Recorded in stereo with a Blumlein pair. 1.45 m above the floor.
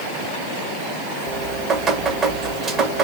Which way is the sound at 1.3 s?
20° right.